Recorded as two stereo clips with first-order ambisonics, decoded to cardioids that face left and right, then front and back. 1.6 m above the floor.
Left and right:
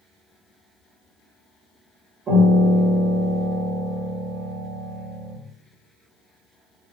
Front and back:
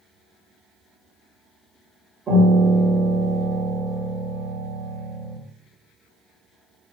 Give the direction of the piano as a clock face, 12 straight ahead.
4 o'clock.